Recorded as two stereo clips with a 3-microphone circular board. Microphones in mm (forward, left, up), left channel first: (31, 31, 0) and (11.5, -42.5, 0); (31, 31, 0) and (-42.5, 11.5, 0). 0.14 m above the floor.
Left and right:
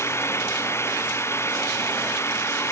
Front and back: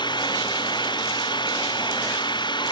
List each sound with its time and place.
0.0 s an engine running: 20° left